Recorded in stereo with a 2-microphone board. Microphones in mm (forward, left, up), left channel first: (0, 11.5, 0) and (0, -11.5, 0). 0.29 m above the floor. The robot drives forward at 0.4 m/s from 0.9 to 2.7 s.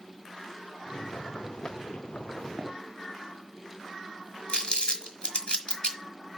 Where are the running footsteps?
25° right (ahead or behind), 2 m.